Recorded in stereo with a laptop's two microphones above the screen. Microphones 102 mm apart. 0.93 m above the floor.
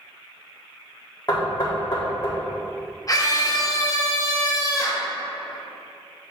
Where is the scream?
40° left (ahead or behind), 1.3 m.